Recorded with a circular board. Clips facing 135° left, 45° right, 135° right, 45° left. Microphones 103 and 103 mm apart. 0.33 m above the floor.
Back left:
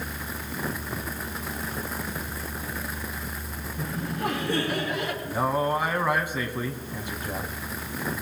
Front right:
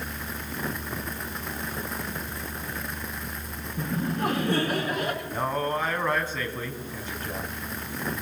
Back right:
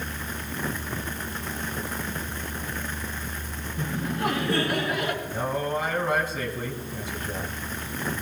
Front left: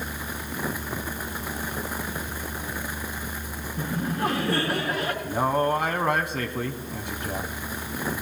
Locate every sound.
3.8 s laughter: 10° right, 4 m
5.2 s a man speaking: 60° left, 2.5 m